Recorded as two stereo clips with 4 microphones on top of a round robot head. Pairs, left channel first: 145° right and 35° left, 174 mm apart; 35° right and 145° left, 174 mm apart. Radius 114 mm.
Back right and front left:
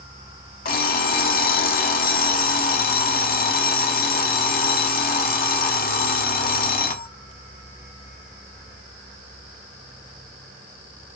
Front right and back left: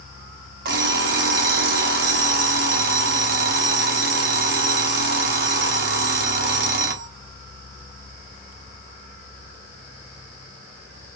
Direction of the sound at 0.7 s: Straight behind.